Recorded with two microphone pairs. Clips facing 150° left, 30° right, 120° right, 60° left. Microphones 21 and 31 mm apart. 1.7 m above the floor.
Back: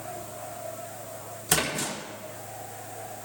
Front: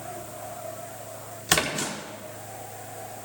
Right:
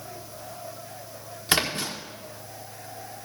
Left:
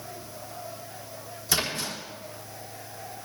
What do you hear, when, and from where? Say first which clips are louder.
1.5 s a splash: front 3 dB, right 3 dB; 85° right, 1.4 m